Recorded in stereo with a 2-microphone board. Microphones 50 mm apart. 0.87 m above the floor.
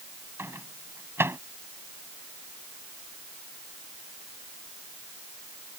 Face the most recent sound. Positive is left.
turn(degrees=-55)  # may be behind; listen again after turning